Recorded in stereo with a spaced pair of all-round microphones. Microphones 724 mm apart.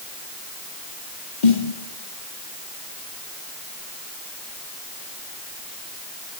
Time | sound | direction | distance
1.4 | a snare drum | 80° left | 2.5 m